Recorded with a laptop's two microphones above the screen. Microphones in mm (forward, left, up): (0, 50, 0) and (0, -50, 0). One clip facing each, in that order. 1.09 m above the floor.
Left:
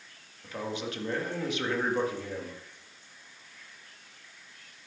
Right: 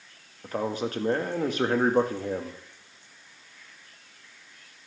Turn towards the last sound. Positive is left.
turn(degrees=-40)  # may be behind; listen again after turning